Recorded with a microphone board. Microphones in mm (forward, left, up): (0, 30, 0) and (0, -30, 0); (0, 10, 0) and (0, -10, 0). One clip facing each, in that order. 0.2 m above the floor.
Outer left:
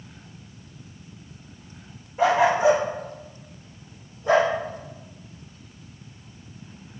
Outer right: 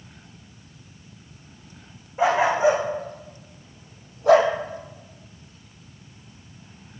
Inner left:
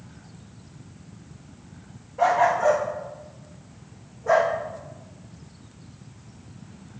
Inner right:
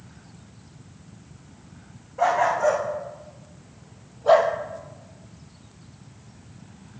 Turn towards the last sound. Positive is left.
turn(degrees=-75)  # may be behind; listen again after turning